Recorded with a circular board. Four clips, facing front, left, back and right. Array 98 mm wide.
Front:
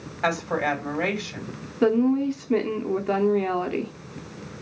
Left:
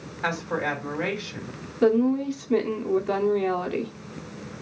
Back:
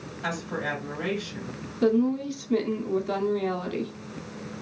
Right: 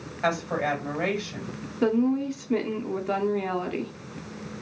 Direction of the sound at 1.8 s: 5° right.